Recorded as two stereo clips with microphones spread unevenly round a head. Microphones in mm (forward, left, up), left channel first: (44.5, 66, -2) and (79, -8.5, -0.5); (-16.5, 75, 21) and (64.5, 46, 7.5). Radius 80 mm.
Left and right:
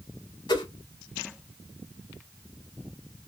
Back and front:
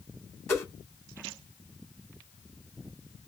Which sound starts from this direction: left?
A whoosh, at 0.5 s.